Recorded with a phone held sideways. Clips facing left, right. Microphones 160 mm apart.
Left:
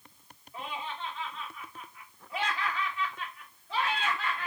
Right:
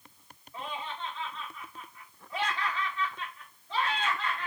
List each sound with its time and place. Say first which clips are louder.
0.5 s laughter: even; 10° left (ahead or behind), 1.6 m